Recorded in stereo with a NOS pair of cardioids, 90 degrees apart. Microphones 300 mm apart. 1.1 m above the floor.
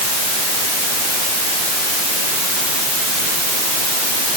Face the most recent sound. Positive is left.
No sound to turn to.